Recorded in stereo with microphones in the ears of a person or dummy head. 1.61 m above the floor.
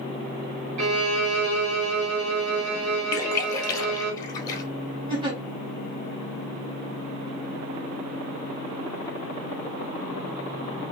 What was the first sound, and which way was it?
A violin, 70° right (ahead or behind).